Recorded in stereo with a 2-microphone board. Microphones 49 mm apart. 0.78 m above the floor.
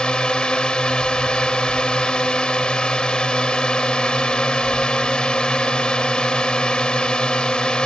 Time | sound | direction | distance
0.0 | a drone | 20° left (ahead or behind) | ?